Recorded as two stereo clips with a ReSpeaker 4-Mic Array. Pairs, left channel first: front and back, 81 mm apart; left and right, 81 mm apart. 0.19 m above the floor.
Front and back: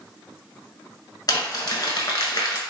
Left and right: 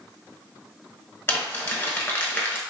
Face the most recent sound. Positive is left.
turn(degrees=30)